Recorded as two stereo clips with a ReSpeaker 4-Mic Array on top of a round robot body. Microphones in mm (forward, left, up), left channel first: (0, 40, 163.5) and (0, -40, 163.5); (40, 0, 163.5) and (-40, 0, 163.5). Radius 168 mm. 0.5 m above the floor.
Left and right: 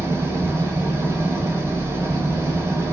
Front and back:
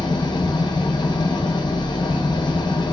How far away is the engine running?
About 1.0 m.